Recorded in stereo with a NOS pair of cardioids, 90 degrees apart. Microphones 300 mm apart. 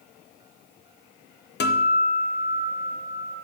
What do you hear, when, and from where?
1.6 s a guitar: 35° left, 0.7 m